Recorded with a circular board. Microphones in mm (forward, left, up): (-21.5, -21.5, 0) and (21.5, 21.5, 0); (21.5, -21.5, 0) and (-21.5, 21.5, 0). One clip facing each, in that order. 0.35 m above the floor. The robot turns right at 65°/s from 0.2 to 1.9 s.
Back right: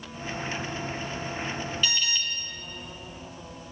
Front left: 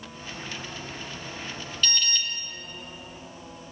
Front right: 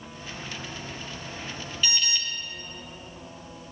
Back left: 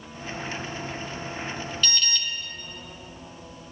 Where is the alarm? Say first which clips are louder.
Front left 1 dB, front right 1 dB; 80° right, 0.5 m; by 2.2 s 75° right, 0.5 m.